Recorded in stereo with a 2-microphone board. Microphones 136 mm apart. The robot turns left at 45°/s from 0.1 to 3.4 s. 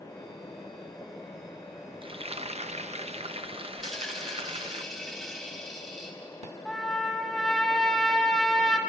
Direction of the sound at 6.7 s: 5° left (ahead or behind).